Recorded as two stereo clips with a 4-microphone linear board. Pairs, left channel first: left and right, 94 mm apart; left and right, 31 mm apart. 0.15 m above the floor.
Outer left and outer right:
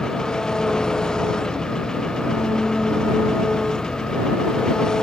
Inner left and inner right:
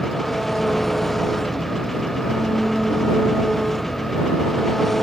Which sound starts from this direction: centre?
An engine running, at 0.0 s.